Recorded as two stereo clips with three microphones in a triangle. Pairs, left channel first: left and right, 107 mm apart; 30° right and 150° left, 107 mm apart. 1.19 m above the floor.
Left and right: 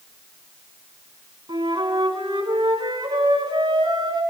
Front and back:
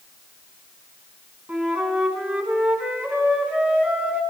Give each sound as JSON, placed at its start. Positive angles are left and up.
{"t": 1.5, "sound": "a flute", "azimuth_deg": -135, "distance_m": 5.0}